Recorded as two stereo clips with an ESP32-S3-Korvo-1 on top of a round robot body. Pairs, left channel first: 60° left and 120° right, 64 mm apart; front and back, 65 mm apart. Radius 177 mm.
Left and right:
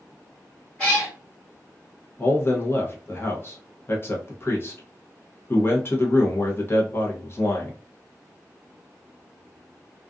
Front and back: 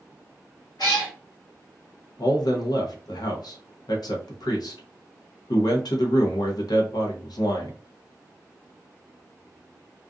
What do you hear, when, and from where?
0.8 s a cat meowing: 15° right, 1.4 m
2.2 s a man speaking: 5° left, 0.8 m